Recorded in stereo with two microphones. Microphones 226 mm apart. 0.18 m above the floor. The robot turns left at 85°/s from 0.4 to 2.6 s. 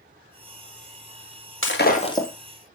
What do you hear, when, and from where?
1.6 s breaking glass: 65° left, 1.8 m; by 2.3 s 5° left, 1.8 m